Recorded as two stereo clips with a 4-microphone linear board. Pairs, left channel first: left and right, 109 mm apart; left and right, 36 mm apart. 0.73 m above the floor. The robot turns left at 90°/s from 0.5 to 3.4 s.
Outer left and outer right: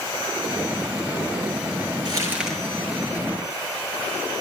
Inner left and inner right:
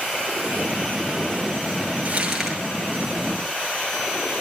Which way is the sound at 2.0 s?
135° right.